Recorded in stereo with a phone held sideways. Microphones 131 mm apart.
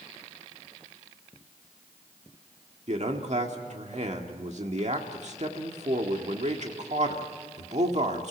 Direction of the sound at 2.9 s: 60° right (ahead or behind).